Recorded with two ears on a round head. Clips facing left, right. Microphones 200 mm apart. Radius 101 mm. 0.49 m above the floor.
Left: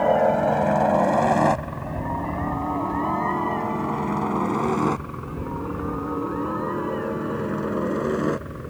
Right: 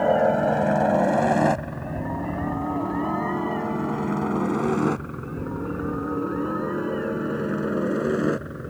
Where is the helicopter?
5° right (ahead or behind).